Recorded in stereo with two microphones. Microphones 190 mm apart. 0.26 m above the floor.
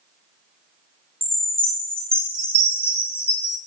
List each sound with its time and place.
1.2 s a chime: 30° right (ahead or behind), 0.6 m